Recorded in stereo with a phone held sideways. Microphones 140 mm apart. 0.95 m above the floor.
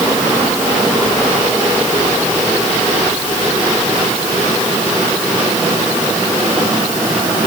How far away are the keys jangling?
No keys jangling in this recording.